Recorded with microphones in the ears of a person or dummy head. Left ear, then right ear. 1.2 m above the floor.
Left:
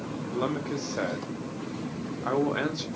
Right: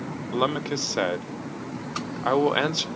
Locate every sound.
0.3 s a man speaking: 65° right (ahead or behind), 0.6 m